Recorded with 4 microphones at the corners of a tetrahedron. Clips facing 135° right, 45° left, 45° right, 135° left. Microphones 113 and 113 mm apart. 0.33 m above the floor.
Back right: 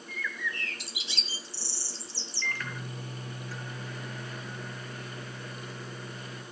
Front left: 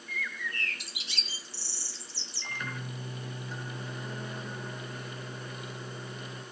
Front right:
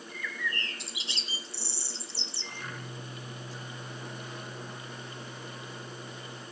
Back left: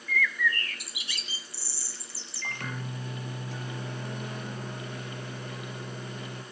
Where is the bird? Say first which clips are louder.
Back right 2 dB, back left 8 dB; 15° left, 1.3 m.